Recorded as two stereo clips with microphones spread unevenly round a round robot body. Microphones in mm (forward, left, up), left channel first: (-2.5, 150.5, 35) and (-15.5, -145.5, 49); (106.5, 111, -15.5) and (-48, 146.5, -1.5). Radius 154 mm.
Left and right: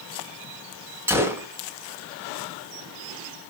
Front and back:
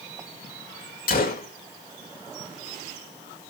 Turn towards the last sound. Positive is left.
turn(degrees=-10)